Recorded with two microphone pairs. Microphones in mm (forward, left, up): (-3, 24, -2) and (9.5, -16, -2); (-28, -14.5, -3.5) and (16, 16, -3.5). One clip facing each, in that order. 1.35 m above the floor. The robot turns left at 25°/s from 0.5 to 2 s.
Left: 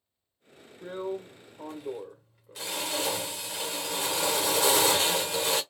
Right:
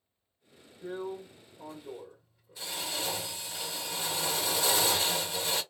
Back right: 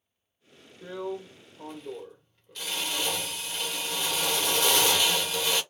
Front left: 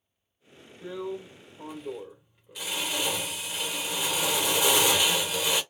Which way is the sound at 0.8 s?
140° left.